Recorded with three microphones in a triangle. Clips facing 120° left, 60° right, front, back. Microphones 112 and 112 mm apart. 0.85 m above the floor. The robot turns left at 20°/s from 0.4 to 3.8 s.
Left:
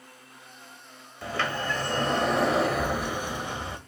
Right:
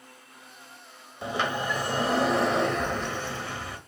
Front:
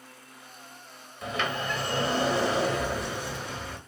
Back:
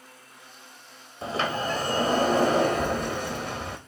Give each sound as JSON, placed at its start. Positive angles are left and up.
{"t": 1.2, "sound": "a sliding door", "azimuth_deg": -130, "distance_m": 1.3}